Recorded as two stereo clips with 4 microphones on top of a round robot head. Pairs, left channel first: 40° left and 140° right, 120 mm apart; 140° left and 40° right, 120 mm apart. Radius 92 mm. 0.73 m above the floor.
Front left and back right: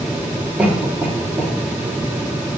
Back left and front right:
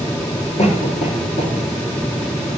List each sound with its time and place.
0.6 s a cough: 140° left, 1.7 m